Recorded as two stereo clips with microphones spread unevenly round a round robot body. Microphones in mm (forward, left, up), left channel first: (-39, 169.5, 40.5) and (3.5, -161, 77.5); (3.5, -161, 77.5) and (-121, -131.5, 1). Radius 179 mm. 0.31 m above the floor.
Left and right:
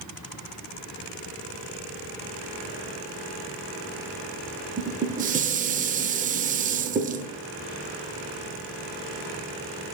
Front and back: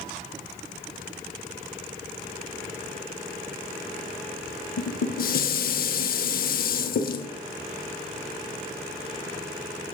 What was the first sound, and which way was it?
Dishes clattering, 20° right.